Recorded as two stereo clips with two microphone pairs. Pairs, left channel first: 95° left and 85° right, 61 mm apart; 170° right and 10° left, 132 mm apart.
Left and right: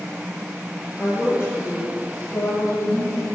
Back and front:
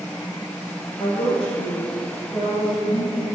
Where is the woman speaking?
155° left, 3 m; by 3.2 s 110° left, 4.5 m.